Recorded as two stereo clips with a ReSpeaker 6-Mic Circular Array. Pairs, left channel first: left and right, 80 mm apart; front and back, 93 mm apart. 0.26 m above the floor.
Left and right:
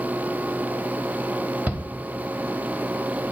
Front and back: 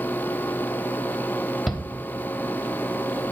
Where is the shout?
90° right, 0.9 m.